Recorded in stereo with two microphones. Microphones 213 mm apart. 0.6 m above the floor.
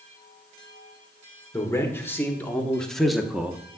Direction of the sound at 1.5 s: 15° left (ahead or behind).